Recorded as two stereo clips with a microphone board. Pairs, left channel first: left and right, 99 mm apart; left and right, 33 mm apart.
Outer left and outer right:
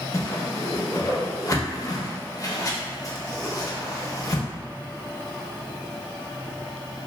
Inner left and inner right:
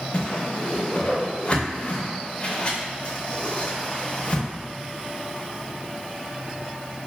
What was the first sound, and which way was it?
A whoosh, 35° left (ahead or behind).